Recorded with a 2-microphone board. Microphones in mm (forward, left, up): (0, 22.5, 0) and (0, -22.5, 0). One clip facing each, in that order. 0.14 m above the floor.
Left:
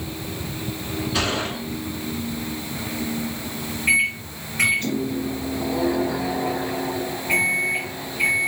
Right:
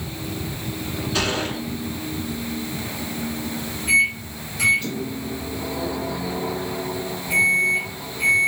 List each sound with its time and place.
1.1 s a gunshot: 5° left (ahead or behind), 2.0 m
3.9 s a microwave: 55° left (ahead or behind), 1.4 m